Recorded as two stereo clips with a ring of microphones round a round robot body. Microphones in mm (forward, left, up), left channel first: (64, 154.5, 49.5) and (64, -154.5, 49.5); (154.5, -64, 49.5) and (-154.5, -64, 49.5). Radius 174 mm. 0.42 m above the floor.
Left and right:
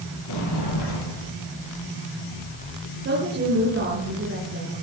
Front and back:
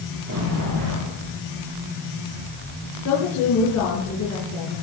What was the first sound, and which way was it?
A sliding door, 140° left.